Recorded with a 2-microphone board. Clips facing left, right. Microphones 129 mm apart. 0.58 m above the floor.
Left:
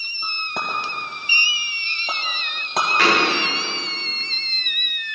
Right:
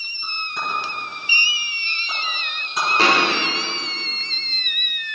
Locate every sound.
0.2 s a clink: 80° left, 2.5 m
3.0 s a thud: 30° right (ahead or behind), 5.5 m